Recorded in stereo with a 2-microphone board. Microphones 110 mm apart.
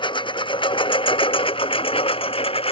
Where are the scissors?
No scissors in this recording.